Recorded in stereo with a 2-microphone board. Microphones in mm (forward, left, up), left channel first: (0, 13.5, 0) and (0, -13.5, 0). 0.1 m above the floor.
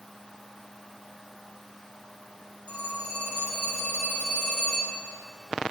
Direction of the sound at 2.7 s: 45° left (ahead or behind).